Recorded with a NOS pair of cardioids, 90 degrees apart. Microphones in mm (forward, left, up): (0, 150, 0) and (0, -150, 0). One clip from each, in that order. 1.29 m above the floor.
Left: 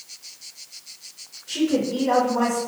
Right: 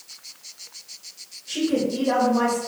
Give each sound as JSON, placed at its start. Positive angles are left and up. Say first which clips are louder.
{"t": 1.5, "sound": "a woman speaking", "louder": "left 1 dB", "azimuth_deg": -5, "distance_m": 0.8}